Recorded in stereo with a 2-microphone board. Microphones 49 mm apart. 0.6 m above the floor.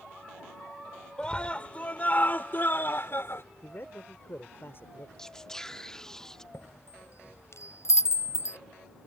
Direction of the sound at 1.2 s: 20° left (ahead or behind).